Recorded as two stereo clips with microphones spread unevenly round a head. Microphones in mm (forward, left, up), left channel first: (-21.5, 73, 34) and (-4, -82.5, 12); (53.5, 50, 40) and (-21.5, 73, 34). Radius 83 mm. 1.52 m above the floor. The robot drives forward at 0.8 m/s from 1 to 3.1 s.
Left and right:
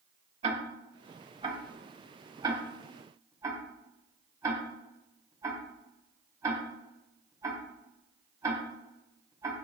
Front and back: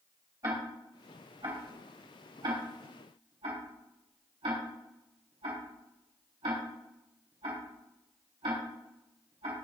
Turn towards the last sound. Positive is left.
turn(degrees=-155)